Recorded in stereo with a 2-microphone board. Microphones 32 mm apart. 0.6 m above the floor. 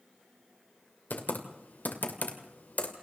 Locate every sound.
1.1 s typing on a keyboard: 65° left (ahead or behind), 2.5 m